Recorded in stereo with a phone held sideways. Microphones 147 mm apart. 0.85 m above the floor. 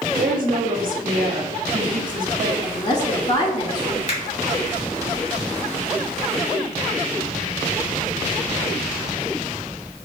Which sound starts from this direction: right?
A woman speaking, at 0.2 s.